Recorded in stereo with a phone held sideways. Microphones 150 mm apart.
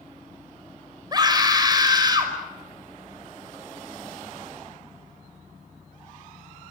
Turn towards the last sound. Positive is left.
turn(degrees=-25)  # may be behind; listen again after turning